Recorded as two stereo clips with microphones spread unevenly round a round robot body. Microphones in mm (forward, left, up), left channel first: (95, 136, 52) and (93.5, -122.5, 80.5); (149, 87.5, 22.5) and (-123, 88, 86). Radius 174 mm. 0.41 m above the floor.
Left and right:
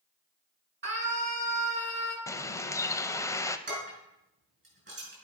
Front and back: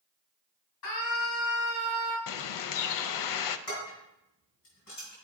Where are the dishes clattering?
45° right, 4.5 m.